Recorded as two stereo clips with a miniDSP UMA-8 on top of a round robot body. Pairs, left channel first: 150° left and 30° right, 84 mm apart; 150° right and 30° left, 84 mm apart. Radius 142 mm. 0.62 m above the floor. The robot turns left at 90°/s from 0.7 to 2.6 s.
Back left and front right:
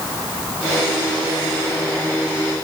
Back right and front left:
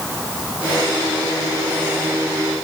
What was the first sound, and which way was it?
Only background noise.